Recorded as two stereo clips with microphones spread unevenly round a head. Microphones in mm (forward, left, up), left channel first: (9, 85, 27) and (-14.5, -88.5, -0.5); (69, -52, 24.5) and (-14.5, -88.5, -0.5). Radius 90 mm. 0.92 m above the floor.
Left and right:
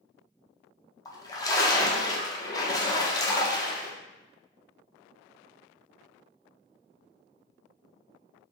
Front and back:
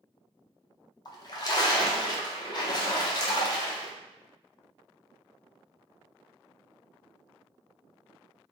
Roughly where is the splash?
Ahead.